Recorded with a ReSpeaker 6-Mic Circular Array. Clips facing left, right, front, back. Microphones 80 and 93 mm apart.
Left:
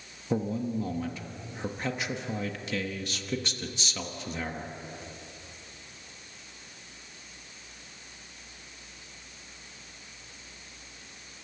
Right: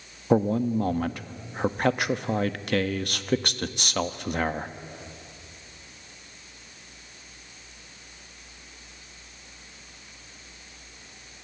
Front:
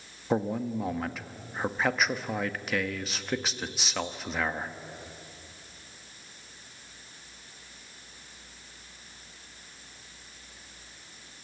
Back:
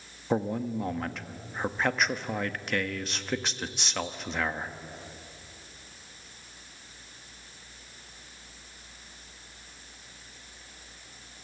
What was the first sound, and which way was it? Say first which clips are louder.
A man speaking: right 8 dB, even; 90° right.